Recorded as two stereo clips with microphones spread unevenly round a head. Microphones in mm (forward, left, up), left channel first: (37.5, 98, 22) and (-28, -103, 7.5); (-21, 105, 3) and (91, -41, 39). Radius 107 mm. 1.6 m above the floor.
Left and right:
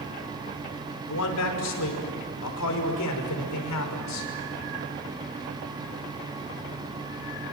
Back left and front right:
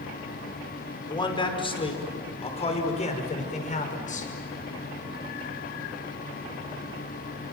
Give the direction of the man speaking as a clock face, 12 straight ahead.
10 o'clock.